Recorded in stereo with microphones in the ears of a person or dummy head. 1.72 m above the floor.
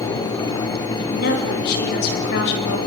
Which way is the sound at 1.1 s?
55° left (ahead or behind).